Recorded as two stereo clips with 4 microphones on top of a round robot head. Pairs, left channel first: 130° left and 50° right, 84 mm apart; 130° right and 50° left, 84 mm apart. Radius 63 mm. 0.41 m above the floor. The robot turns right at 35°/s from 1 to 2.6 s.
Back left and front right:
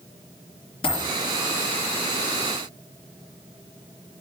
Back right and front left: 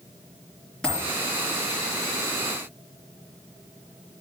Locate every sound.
0.8 s a dropped coin: 145° left, 3.5 m